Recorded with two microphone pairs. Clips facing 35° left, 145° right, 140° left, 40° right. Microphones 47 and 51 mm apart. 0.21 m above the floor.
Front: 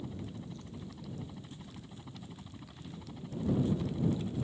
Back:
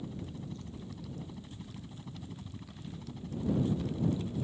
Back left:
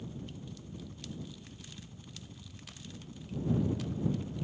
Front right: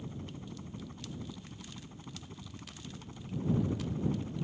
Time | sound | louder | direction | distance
0.0 | a helicopter | back 1 dB, even | 50° right | ?